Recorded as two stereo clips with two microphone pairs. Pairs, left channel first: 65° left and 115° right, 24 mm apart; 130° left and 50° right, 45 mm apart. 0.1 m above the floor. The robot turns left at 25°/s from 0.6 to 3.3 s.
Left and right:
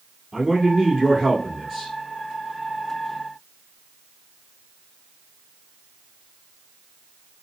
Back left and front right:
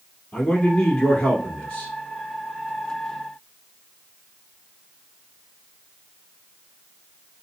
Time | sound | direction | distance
0.3 | a man speaking | 155° right | 1.4 m